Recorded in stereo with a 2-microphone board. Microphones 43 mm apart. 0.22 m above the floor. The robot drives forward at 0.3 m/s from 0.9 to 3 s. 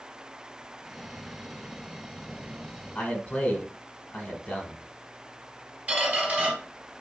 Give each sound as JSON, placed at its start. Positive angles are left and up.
{"t": 3.0, "sound": "a man speaking", "side_deg": 30, "distance_m": 1.3}
{"t": 5.9, "sound": "a squeak", "side_deg": -30, "distance_m": 2.5}